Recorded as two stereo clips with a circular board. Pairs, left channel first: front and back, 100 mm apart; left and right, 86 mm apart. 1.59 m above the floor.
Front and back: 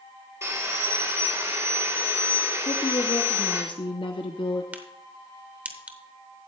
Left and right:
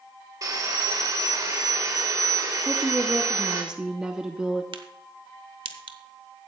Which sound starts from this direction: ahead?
A woman speaking, at 2.6 s.